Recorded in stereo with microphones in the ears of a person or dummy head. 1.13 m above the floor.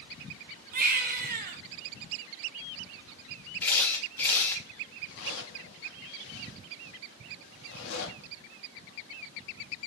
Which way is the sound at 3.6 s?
10° left (ahead or behind).